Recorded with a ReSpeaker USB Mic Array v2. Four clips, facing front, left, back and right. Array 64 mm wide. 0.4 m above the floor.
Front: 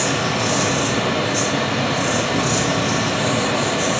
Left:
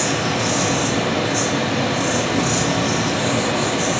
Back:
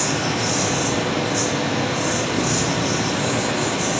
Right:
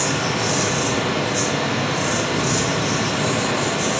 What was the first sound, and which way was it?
An insect, 35° left.